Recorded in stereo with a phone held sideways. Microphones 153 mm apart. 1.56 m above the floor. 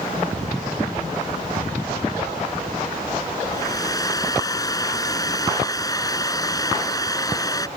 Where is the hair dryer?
25° left (ahead or behind).